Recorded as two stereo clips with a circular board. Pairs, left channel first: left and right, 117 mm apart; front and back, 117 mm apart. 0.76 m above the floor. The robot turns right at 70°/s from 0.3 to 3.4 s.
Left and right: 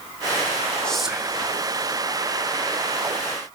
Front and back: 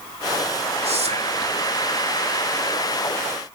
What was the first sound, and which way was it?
Whispering, 170° left.